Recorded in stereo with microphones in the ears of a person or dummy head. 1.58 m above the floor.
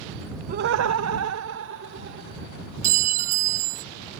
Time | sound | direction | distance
0.5 | laughter | 35° right (ahead or behind) | ?
2.8 | a clink | 45° right (ahead or behind) | ?